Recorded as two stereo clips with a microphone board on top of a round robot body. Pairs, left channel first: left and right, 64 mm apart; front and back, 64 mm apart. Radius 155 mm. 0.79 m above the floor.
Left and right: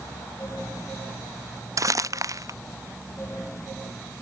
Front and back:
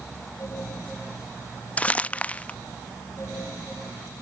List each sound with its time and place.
1.8 s crumpling: 65° right